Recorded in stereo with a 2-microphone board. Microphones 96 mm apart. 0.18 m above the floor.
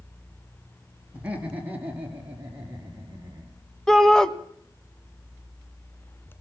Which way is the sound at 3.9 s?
5° left (ahead or behind).